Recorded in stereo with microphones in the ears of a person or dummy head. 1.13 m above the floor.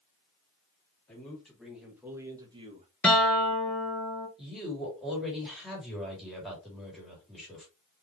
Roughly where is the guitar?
Centre.